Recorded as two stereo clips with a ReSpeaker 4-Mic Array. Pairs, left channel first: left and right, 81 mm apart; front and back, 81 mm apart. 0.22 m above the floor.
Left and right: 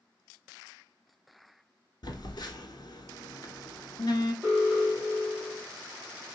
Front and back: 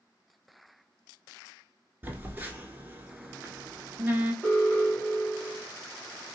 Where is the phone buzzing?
115° left, 0.7 m.